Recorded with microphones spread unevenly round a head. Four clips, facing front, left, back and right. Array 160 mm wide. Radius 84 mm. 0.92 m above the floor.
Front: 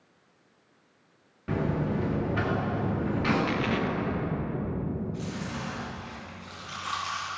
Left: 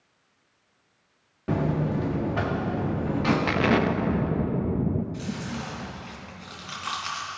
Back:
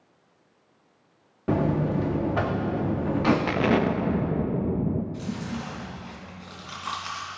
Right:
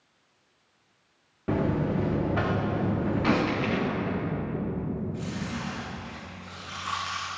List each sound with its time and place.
1.5 s a buzzer: 175° right, 1.5 m
3.5 s an explosion: 140° left, 0.5 m
5.1 s chewing: 160° left, 3 m